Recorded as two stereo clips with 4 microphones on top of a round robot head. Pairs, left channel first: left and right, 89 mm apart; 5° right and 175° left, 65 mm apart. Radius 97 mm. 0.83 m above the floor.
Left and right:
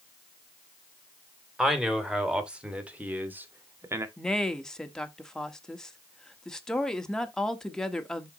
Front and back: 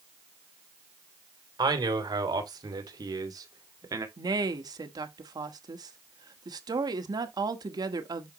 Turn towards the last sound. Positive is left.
turn(degrees=175)